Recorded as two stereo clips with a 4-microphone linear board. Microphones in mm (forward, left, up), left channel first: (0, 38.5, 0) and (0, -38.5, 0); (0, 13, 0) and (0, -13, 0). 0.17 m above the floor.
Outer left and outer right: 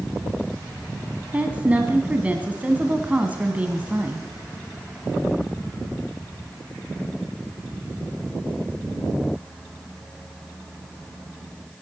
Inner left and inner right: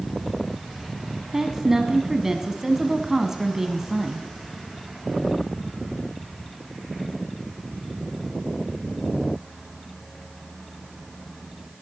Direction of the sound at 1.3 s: 20° right (ahead or behind).